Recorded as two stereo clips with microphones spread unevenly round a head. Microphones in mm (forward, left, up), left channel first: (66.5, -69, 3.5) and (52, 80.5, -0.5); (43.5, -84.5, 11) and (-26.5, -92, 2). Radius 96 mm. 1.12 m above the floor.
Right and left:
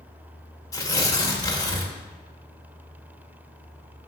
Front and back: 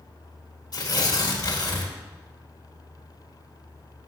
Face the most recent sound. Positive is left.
turn(degrees=-15)